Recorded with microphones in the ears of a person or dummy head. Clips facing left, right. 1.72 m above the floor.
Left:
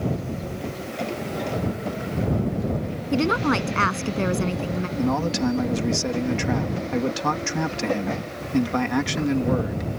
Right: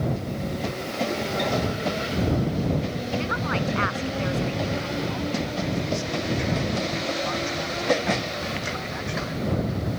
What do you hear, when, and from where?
3.1 s a woman speaking: 60° left (ahead or behind)
5.0 s a man speaking: 85° left